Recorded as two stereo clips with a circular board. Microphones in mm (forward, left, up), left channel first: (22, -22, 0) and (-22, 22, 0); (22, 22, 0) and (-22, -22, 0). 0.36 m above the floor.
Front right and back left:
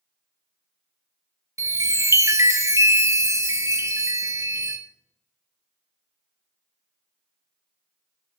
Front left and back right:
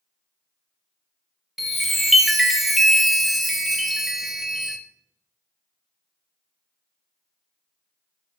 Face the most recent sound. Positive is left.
turn(degrees=140)